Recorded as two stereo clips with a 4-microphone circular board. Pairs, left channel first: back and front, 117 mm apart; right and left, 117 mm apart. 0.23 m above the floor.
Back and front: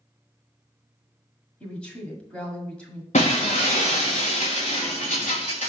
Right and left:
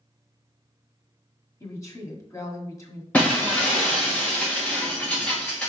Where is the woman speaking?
110° right, 1.6 m.